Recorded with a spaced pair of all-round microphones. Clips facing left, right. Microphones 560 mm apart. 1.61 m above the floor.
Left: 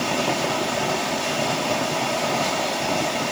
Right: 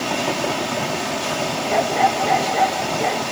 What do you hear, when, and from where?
1.7 s a dog barking: 80° right